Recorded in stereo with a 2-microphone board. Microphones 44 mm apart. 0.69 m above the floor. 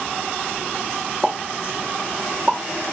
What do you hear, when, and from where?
1.2 s a pop: 15° right (ahead or behind), 0.8 m